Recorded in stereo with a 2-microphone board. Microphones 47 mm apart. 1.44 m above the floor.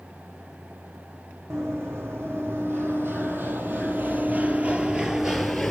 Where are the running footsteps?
65° right (ahead or behind), 3.5 m; by 5.7 s 5° left (ahead or behind), 1.4 m.